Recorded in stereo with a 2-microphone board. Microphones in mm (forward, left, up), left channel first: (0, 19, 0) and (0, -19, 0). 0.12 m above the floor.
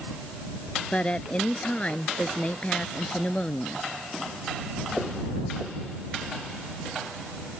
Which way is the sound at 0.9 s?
30° left (ahead or behind).